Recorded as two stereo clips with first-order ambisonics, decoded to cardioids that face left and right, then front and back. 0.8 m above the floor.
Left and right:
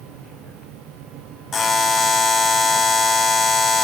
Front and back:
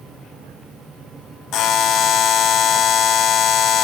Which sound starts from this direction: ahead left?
A buzzer, at 1.5 s.